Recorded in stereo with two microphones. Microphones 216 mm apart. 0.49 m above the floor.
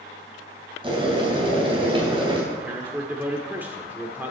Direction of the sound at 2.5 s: 10° right (ahead or behind).